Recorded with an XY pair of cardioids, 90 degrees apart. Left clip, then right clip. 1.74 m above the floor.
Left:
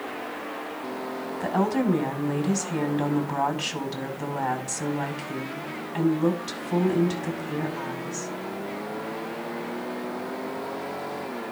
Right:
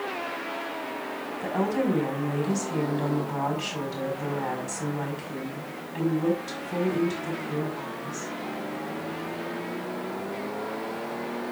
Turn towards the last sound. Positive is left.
turn(degrees=55)